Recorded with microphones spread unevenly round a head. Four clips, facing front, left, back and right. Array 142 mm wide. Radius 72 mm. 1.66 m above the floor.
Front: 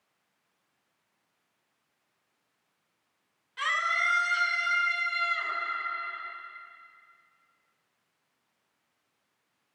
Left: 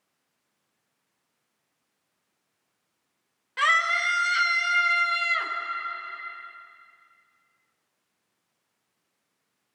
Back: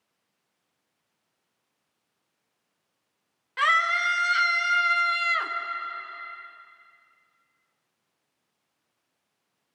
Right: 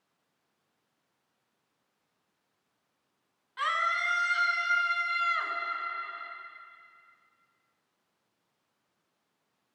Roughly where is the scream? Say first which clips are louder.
Left 5 dB, back 6 dB; behind left.